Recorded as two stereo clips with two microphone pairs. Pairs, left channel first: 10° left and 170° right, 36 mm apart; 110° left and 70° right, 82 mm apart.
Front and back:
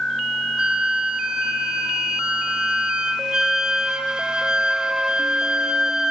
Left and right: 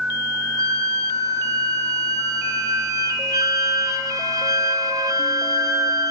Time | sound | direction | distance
0.6 | a flute | 110° right | 0.5 m